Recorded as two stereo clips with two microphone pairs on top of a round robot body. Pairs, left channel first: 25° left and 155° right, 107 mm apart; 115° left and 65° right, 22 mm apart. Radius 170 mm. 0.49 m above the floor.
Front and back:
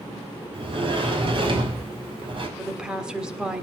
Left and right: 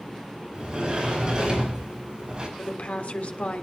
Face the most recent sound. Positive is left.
turn(degrees=125)